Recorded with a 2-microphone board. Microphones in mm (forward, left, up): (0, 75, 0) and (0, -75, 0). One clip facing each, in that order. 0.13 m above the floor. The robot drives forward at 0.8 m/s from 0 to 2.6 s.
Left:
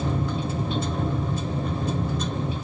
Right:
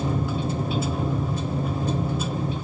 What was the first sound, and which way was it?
Only background noise.